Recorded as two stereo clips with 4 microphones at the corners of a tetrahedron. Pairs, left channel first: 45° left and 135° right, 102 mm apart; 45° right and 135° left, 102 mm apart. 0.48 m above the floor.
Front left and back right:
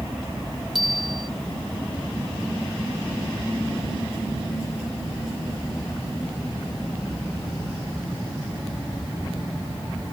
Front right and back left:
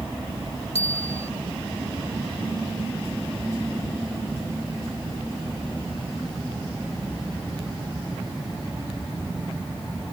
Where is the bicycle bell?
45° right.